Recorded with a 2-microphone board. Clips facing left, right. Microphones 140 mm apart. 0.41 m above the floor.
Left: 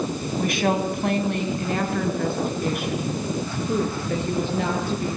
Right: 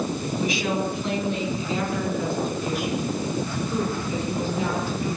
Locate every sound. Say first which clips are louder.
0.4 s a woman speaking: left 4 dB; 55° left (ahead or behind), 3 m; by 5.2 s 60° left (ahead or behind), 10 m